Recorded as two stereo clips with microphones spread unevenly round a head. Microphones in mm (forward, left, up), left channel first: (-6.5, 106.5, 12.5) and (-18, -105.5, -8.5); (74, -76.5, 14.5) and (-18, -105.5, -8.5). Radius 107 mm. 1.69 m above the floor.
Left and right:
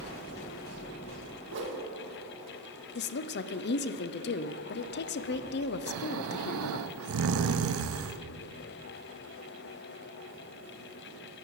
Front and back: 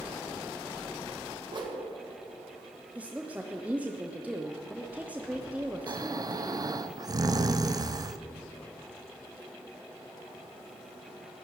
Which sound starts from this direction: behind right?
A whoosh, at 1.5 s.